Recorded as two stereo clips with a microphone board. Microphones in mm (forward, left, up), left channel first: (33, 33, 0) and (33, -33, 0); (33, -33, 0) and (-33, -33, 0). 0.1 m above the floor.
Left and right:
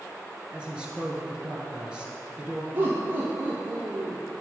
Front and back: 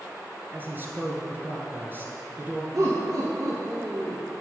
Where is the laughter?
145° right, 2.5 m.